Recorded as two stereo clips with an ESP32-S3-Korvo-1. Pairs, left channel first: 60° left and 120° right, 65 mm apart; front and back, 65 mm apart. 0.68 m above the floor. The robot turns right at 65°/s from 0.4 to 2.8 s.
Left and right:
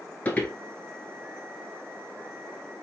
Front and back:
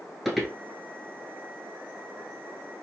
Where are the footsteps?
95° left, 0.7 m; by 0.5 s 105° left, 0.7 m.